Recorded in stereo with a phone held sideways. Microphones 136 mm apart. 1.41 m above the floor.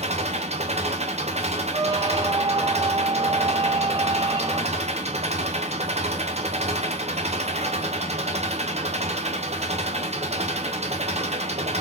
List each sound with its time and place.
0.0 s an engine running: 55° right (ahead or behind), 1.0 m
1.7 s a squeak: 30° right (ahead or behind), 0.9 m